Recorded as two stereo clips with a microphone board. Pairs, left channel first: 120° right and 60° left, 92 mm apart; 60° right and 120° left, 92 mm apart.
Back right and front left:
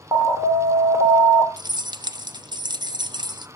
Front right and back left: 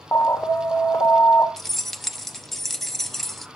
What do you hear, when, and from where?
0.1 s an alarm: 5° left, 1.8 m
1.6 s keys jangling: 25° left, 0.6 m